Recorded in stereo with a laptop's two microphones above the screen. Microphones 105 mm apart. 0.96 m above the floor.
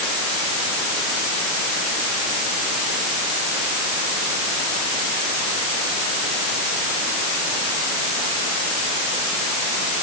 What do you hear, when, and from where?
Only background noise.